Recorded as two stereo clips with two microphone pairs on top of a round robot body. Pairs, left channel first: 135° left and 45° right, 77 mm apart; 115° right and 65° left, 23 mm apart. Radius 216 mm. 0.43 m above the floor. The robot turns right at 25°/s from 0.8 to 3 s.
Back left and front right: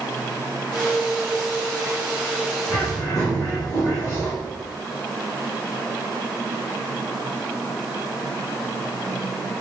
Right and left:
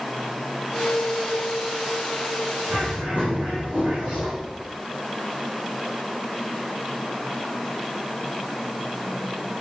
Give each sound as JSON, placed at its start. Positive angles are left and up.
{"t": 2.7, "sound": "a bird", "azimuth_deg": 85, "distance_m": 7.0}